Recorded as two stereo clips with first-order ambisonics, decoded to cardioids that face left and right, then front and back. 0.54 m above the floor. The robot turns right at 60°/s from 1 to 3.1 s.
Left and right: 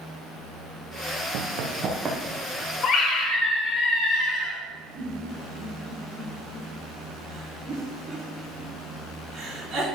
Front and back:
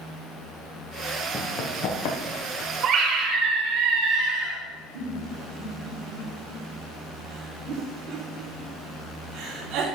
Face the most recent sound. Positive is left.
turn(degrees=-155)